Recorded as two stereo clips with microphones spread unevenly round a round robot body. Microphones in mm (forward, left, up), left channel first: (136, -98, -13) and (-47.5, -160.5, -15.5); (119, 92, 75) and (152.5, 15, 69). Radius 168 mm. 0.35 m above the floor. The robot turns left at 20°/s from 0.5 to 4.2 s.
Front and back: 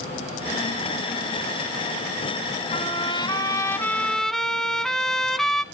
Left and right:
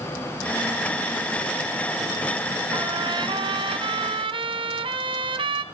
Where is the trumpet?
40° right, 1.6 m; by 5.6 s 70° right, 1.6 m.